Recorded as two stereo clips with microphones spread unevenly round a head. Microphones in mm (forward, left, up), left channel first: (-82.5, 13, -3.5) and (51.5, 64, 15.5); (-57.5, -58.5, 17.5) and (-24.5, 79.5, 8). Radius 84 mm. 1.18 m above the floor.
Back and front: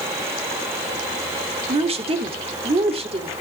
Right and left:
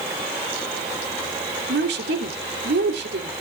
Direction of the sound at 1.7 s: 70° left.